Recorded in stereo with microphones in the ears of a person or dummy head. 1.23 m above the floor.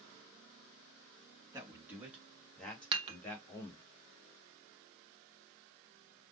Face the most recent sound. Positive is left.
turn(degrees=-25)  # may be behind; listen again after turning